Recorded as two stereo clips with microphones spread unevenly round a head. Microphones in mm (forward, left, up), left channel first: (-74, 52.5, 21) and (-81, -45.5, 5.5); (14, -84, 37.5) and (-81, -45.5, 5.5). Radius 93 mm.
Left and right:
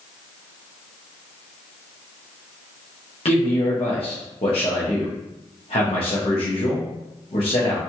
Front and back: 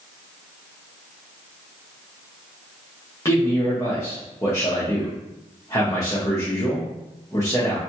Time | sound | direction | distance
3.2 | a man speaking | 45° left | 0.8 m